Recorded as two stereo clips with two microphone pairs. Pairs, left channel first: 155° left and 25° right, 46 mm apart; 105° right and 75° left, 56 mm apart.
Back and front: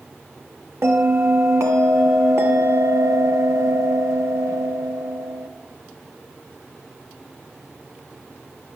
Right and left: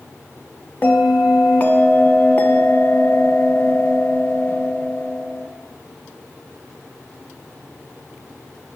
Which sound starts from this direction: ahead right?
A bell, at 0.8 s.